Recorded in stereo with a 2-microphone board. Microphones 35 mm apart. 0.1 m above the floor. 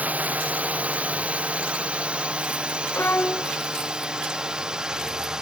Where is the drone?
45° right (ahead or behind); by 5.4 s 20° right (ahead or behind).